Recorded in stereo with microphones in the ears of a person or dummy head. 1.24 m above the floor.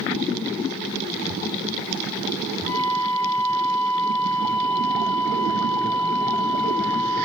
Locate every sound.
2.6 s a flute: 20° left (ahead or behind), 4 m